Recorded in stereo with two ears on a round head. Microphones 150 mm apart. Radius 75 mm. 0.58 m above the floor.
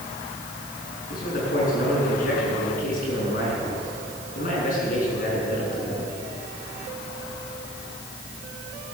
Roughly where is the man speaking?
Left.